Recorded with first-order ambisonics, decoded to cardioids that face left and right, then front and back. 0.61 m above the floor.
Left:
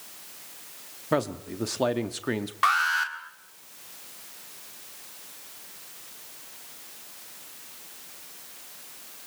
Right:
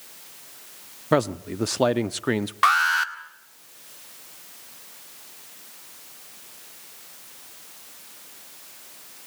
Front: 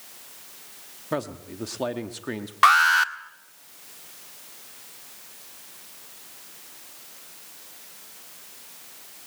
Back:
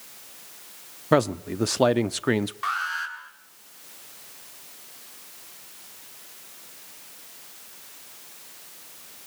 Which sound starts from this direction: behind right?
A man speaking, at 1.1 s.